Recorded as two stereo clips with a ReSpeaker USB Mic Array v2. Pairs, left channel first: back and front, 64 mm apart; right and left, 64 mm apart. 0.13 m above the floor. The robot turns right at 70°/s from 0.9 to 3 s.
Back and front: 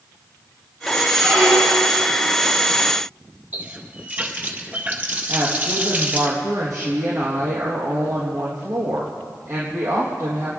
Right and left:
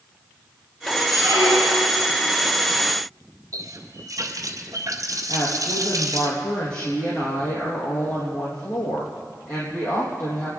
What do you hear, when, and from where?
1.1 s a squeak: 85° left, 7 m; by 2.0 s 145° left, 7 m
3.5 s a running tap: 65° left, 1.9 m
5.3 s a woman speaking: 55° right, 4 m